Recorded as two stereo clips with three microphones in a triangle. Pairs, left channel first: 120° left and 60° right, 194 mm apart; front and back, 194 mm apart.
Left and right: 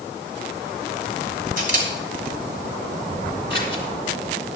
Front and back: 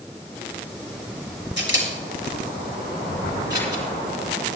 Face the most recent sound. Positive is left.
turn(degrees=-25)